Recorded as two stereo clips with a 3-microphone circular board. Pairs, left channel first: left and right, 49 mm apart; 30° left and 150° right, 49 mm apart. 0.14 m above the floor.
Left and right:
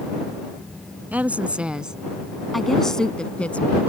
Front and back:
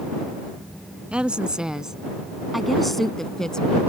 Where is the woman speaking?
100° right; by 3.8 s 90° left.